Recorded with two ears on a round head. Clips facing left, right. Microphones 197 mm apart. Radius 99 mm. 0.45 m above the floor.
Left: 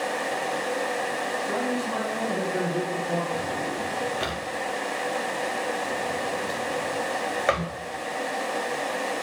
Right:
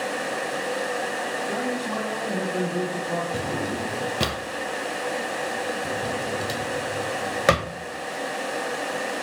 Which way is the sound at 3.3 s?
55° right (ahead or behind).